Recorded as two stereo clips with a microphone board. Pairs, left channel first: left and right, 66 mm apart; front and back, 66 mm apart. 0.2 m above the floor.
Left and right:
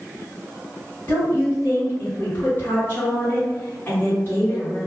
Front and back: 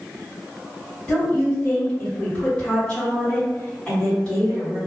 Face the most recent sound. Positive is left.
turn(degrees=65)